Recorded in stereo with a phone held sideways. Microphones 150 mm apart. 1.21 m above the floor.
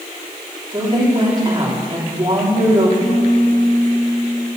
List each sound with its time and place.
0.7 s a woman speaking: 30° right (ahead or behind), 3.5 m
3.0 s a piano: 50° left (ahead or behind), 4.5 m